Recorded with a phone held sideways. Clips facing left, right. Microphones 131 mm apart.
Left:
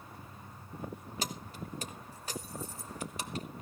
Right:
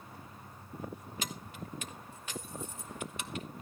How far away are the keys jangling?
About 1.1 m.